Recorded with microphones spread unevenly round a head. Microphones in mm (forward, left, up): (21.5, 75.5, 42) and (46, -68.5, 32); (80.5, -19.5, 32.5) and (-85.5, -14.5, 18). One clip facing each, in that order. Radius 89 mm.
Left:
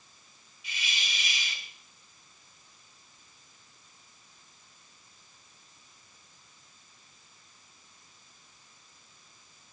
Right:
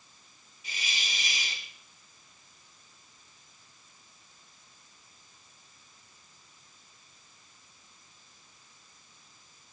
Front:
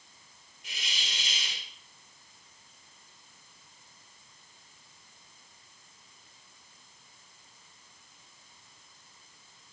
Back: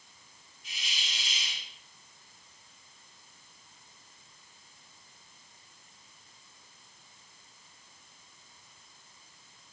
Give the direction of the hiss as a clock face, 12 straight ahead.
1 o'clock.